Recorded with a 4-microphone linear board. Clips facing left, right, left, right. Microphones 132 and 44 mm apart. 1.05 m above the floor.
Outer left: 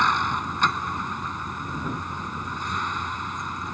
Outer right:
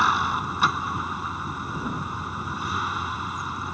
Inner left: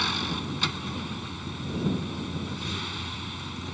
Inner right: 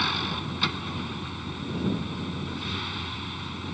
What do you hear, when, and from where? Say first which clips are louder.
0.0 s a vehicle: even, inner right 1 dB; 5° right (ahead or behind)